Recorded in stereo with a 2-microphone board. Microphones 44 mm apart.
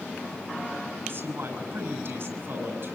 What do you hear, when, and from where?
1.0 s a man speaking: 60° right (ahead or behind), 6.5 m